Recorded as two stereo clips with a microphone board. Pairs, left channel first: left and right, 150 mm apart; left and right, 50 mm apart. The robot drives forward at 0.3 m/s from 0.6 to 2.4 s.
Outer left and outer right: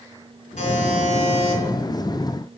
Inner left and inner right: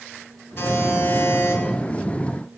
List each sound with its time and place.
0.6 s a buzzer: 45° left (ahead or behind), 2.5 m; by 1.6 s 40° left (ahead or behind), 2.5 m